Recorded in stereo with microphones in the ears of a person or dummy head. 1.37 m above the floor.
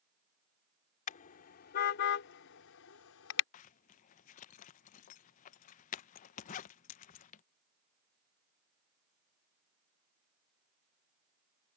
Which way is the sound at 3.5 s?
40° left (ahead or behind).